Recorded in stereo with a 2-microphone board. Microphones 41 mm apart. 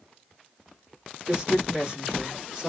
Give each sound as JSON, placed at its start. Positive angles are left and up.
{"t": 1.3, "sound": "a woman speaking", "side_deg": -15, "distance_m": 1.7}